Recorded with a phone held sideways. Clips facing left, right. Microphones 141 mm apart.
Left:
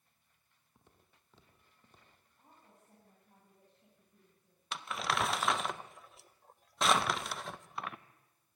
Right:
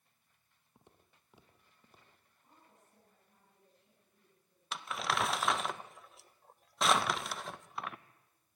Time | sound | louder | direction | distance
0.8 | footsteps | right 2 dB | 20° right (ahead or behind) | 2 m
2.4 | a woman speaking | left 2 dB | 70° left (ahead or behind) | 8 m
4.7 | crumpling | even | centre (ahead or behind) | 0.7 m